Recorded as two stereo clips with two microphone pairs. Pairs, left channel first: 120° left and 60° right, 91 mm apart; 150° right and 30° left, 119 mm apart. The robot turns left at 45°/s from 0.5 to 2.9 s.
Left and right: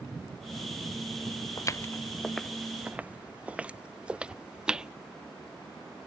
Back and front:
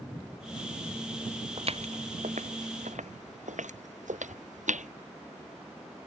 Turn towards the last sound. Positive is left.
turn(degrees=25)